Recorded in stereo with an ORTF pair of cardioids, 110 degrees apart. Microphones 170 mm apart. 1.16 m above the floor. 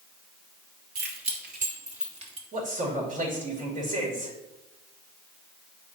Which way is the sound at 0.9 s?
60° right.